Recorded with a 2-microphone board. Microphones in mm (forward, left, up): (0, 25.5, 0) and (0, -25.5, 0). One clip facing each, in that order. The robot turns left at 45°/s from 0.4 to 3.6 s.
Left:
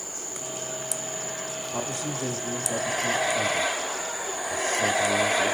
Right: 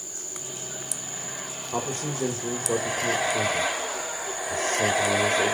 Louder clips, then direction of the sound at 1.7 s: Right 3 dB; 45° right.